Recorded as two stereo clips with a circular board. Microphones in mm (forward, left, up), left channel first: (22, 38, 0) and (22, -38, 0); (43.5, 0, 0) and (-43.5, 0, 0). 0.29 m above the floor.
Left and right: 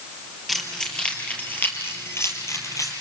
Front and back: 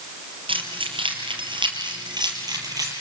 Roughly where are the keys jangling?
Behind.